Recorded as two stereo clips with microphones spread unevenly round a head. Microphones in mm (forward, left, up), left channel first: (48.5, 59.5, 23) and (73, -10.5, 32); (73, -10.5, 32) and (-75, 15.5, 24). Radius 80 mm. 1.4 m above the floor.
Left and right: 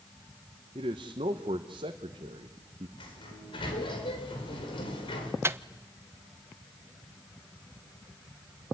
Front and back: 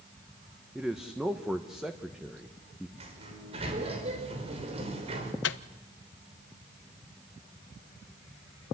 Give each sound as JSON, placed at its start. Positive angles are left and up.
{"t": 0.8, "sound": "a man speaking", "azimuth_deg": -105, "distance_m": 1.2}
{"t": 3.0, "sound": "a sliding door", "azimuth_deg": 115, "distance_m": 4.5}
{"t": 5.4, "sound": "a microwave", "azimuth_deg": -15, "distance_m": 0.9}